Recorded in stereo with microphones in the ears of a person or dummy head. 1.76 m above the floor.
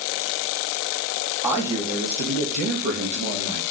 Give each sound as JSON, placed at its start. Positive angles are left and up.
{"t": 1.4, "sound": "a man speaking", "side_deg": -10, "distance_m": 0.6}